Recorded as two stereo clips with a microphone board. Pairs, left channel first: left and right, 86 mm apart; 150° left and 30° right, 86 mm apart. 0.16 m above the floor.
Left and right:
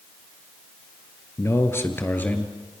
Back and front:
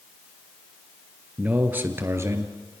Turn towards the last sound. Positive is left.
turn(degrees=20)